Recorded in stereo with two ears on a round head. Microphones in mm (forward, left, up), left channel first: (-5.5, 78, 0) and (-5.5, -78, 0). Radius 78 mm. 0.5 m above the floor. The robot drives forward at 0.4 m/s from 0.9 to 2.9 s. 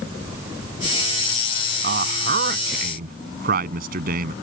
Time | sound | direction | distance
1.8 | a man speaking | 60° right (ahead or behind) | ?